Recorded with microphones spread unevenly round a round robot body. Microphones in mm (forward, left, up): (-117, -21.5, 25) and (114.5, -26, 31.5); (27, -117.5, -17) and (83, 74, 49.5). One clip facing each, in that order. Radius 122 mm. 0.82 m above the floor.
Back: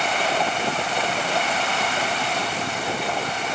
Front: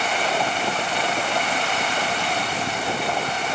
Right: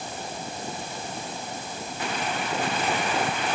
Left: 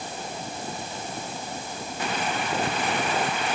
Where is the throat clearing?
I don't hear throat clearing.